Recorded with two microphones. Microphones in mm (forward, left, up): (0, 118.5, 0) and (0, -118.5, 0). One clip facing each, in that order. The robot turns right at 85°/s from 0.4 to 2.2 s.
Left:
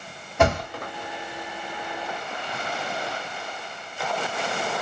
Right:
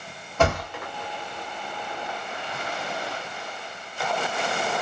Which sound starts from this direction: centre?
A thud, at 0.4 s.